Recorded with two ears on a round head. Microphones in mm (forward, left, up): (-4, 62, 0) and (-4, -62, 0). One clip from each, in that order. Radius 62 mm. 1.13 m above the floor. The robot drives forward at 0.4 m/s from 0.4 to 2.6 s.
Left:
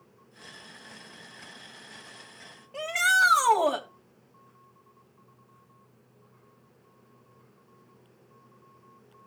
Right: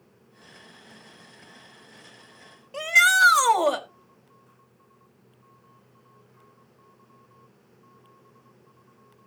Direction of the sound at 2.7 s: 70° right (ahead or behind).